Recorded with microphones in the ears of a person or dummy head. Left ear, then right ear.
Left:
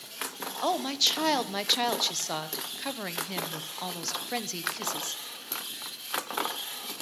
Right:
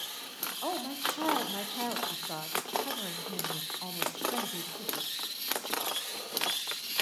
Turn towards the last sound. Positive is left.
turn(degrees=75)  # may be behind; listen again after turning